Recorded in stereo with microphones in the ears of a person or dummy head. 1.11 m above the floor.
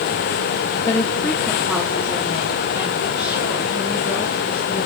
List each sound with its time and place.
0.9 s a woman speaking: 15° left (ahead or behind), 1.4 m; by 4.9 s 30° right (ahead or behind), 5 m